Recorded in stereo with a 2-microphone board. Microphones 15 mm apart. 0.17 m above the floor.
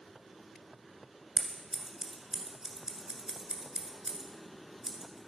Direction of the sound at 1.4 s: 45° right (ahead or behind).